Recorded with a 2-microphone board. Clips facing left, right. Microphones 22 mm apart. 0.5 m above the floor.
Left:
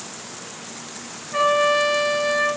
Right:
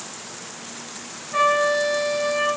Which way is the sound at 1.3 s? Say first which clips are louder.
Left 1 dB; centre (ahead or behind).